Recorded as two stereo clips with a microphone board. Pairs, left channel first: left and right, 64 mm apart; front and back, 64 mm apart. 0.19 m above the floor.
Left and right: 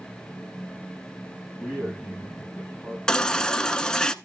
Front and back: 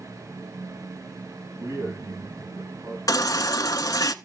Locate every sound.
1.6 s a man speaking: 155° right, 6.5 m
3.1 s a baby crying: 10° left, 0.6 m